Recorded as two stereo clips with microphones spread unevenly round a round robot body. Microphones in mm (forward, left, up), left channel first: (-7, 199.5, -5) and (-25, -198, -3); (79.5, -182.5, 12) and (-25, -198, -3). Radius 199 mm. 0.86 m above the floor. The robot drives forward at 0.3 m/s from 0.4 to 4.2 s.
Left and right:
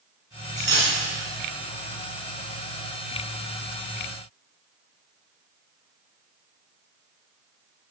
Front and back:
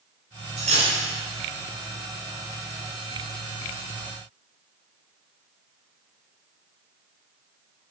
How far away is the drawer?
I don't hear a drawer.